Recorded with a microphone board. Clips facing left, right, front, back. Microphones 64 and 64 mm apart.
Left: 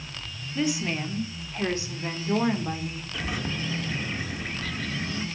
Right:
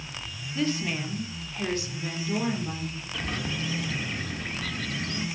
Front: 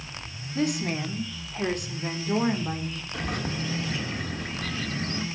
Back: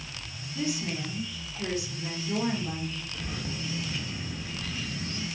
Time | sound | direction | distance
0.6 | a woman speaking | 10° left | 1.9 m
3.1 | a bird | 5° left | 1.4 m